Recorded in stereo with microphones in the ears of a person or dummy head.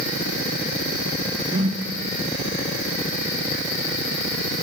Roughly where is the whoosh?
Right.